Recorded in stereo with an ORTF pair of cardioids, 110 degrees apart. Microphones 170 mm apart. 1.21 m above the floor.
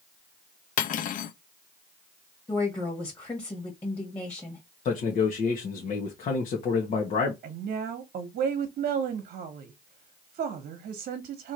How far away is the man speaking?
About 1.5 m.